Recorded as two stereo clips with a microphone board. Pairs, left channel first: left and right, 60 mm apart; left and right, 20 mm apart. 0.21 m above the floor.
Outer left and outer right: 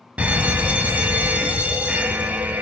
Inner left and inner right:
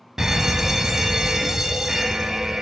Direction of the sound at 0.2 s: 25° right (ahead or behind).